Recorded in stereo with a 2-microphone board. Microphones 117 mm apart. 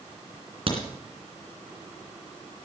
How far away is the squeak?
I don't hear a squeak.